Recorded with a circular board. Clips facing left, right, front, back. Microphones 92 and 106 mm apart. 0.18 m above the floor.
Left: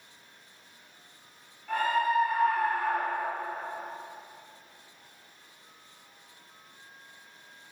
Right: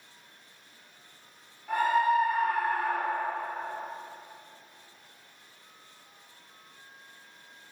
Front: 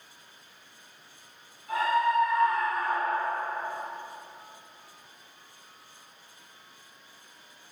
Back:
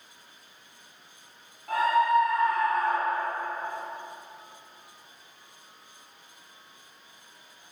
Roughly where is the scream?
Behind.